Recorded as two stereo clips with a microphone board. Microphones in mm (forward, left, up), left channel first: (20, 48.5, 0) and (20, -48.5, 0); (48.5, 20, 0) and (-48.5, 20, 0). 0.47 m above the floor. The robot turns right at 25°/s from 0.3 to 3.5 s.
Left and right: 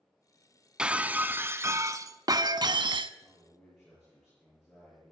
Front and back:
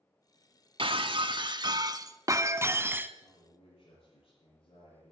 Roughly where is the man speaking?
Ahead.